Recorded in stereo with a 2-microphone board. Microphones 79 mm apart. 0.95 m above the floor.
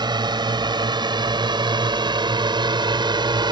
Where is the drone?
65° right (ahead or behind); by 3.5 s 70° right (ahead or behind).